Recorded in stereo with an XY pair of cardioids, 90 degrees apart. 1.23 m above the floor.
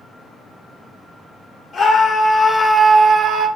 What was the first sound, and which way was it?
A scream, 50° left.